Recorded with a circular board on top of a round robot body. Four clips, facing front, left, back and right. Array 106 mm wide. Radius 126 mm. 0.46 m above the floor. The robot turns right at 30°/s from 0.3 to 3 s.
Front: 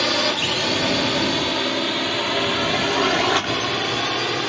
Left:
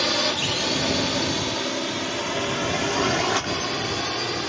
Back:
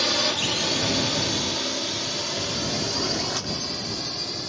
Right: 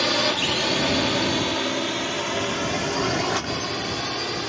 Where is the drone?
20° right; by 4.5 s straight ahead.